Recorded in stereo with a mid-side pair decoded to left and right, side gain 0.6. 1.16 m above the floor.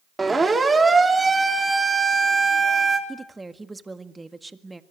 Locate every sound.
0.2 s a siren: 15° right, 3.5 m
3.1 s a woman speaking: 15° right, 1.7 m